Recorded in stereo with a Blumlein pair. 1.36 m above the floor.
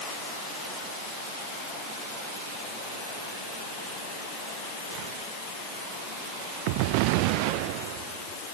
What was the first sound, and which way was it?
Only background noise.